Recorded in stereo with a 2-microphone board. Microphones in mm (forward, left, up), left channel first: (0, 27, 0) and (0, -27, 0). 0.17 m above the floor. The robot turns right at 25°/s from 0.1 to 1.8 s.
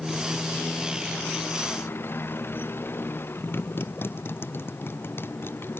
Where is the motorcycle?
5° left; by 5.8 s 45° left.